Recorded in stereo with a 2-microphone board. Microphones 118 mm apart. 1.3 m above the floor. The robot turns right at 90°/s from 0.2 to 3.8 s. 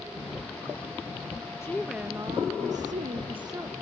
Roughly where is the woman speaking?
Behind.